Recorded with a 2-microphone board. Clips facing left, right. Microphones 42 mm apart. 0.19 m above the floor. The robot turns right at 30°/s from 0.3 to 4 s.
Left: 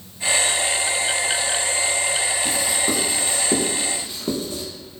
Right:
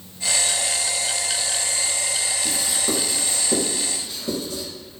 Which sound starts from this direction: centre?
Writing, at 2.5 s.